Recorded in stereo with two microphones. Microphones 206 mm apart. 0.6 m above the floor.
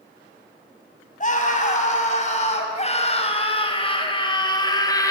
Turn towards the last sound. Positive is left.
turn(degrees=15)  # may be behind; listen again after turning